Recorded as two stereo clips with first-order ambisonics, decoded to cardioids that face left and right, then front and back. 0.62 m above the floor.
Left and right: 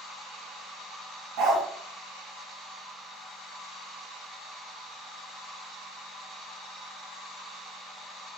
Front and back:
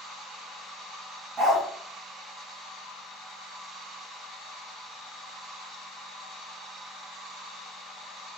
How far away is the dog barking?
About 1.0 m.